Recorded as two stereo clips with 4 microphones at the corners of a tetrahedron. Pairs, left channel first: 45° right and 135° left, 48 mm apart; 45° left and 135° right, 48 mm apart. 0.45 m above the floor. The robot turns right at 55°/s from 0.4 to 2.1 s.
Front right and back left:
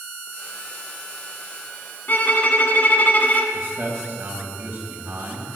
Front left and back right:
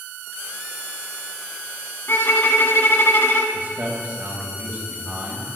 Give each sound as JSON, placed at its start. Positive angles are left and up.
{"t": 2.1, "sound": "a violin", "azimuth_deg": 5, "distance_m": 1.3}
{"t": 3.5, "sound": "a man speaking", "azimuth_deg": 180, "distance_m": 3.0}